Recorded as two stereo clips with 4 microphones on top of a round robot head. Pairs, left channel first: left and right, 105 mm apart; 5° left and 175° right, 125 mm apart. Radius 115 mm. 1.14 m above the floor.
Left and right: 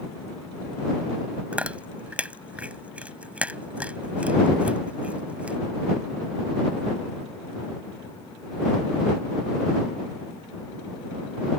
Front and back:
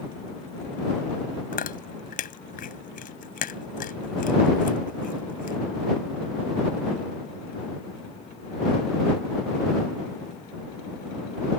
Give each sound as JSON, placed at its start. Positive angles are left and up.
{"t": 1.5, "sound": "chewing", "azimuth_deg": -10}